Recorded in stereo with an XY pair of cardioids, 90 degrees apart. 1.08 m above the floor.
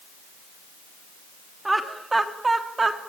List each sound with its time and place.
1.6 s laughter: 15° right, 2.5 m; by 3.0 s 35° right, 3 m